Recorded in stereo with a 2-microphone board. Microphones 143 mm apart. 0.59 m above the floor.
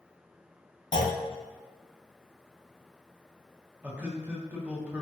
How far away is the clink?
No clink in this recording.